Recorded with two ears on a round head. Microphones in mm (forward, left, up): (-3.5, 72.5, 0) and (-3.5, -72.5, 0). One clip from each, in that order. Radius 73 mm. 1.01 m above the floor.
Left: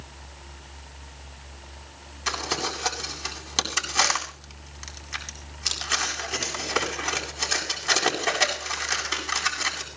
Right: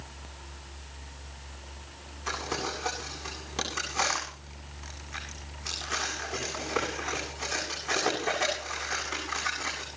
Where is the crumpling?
85° left, 8.5 m.